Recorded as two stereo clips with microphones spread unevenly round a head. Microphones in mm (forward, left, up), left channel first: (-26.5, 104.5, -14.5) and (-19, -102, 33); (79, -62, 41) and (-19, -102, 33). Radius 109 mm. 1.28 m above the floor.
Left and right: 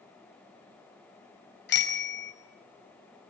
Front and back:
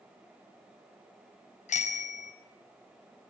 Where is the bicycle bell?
50° left, 5 m.